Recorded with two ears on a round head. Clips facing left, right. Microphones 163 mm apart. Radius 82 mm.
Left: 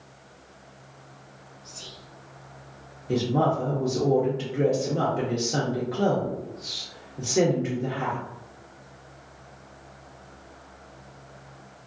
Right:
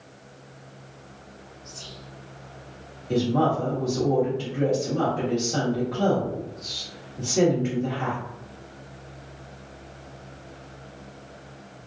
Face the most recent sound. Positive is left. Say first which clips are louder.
# right 1 dB
turn(degrees=20)  # may be behind; listen again after turning